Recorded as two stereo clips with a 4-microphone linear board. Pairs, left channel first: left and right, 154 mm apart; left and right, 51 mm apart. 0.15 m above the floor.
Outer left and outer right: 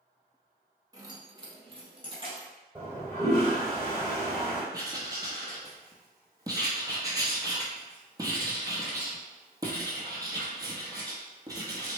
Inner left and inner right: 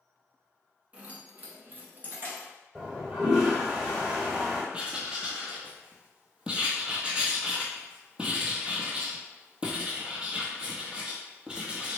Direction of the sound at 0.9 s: 25° right (ahead or behind).